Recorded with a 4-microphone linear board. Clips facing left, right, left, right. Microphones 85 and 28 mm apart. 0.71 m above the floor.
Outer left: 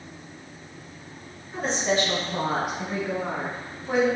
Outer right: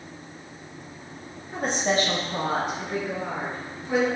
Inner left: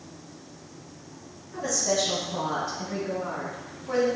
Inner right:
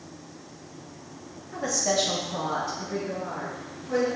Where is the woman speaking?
60° right (ahead or behind), 1.1 m; by 4.1 s 60° left (ahead or behind), 1.7 m.